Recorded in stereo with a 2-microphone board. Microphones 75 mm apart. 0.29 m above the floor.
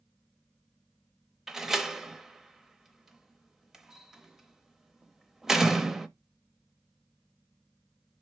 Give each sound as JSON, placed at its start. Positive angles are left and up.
{"t": 1.5, "sound": "a door slam", "side_deg": -5, "distance_m": 0.7}